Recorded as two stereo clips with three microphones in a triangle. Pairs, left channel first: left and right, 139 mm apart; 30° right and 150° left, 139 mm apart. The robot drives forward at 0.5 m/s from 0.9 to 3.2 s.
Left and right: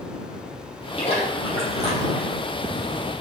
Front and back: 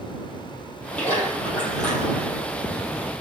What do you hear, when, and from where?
1.0 s a splash: 50° left, 6 m; by 2.4 s 55° left, 5.5 m